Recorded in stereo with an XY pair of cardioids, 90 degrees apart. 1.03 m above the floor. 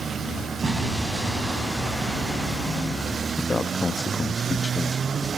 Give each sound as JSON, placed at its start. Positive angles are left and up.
{"t": 0.6, "sound": "an explosion", "azimuth_deg": -35, "distance_m": 4.0}
{"t": 3.4, "sound": "a man speaking", "azimuth_deg": 30, "distance_m": 1.2}